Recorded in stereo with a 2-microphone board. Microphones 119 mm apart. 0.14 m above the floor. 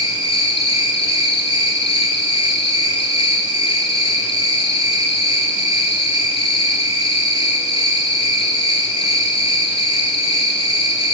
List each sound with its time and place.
0.0 s an insect: 55° left (ahead or behind), 0.9 m